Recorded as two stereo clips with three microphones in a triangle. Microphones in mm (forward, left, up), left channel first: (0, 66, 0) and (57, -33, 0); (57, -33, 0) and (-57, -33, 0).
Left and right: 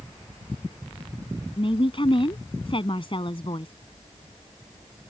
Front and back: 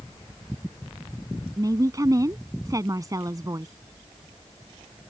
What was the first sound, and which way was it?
A woman speaking, 135° left.